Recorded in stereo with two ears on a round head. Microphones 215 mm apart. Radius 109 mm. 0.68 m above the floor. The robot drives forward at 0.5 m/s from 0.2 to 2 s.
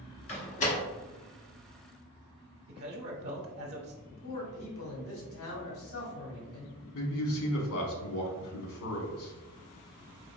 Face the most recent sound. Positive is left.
turn(degrees=65)  # may be behind; listen again after turning